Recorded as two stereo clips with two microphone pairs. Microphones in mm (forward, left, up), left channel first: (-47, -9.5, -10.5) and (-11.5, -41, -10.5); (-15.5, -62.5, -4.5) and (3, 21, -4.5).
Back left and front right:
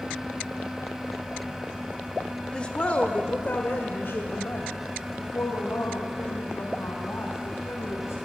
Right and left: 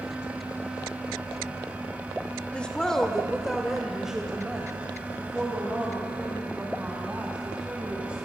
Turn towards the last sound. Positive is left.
turn(degrees=150)